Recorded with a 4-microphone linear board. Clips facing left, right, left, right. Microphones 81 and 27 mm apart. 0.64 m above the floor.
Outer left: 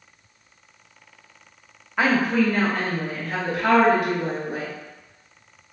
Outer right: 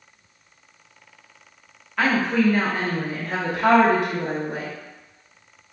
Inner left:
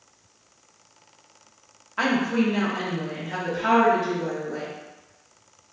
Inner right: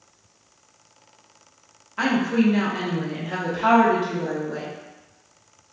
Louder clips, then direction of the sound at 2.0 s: Even, inner right 2 dB; 15° left (ahead or behind).